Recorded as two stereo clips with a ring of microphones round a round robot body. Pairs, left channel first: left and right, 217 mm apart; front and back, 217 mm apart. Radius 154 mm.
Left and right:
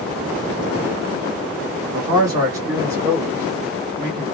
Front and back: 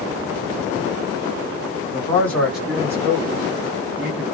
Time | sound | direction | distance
1.9 | a man speaking | 40° right | 1.3 m